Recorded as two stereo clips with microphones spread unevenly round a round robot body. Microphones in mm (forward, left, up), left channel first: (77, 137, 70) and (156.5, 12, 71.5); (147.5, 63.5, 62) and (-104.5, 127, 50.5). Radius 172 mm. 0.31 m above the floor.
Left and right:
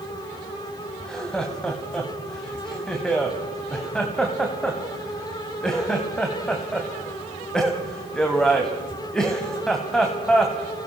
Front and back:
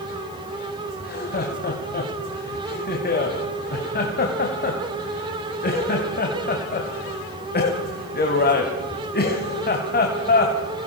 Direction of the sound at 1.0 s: 35° left.